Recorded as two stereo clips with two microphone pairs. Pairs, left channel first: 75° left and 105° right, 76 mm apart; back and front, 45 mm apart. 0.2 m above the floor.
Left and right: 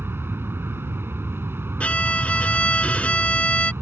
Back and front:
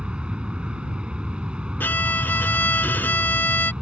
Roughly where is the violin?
Behind left.